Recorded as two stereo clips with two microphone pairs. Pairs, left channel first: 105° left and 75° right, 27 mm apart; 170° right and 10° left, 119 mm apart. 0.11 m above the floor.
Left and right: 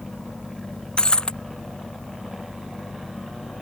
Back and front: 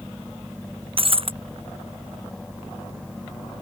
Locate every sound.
1.0 s breaking glass: 50° left